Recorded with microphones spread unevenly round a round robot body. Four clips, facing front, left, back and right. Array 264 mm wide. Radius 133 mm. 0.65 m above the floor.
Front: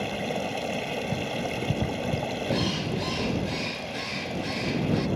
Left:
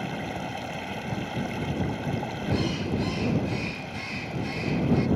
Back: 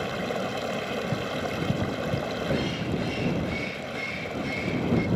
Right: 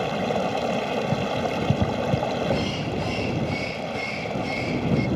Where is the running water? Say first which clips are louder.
Right 8 dB, even; 95° right.